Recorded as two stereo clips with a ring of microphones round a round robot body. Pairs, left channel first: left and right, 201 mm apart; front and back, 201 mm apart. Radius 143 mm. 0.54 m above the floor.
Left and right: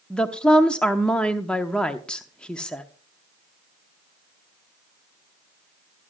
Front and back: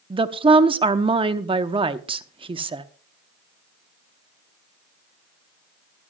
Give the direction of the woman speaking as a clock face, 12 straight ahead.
6 o'clock.